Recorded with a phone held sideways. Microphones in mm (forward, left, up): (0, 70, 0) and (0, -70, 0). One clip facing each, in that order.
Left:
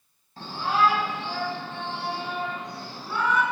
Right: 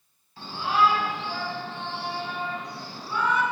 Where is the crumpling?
No crumpling in this recording.